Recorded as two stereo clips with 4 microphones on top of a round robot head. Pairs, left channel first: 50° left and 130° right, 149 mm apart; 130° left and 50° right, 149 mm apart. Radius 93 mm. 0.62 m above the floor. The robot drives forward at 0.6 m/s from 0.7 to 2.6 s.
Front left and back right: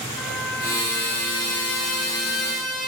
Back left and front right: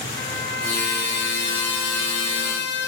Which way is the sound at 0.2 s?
130° left.